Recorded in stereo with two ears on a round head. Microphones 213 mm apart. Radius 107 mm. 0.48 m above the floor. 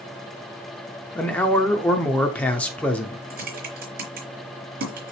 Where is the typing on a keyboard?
40° right (ahead or behind), 4 m.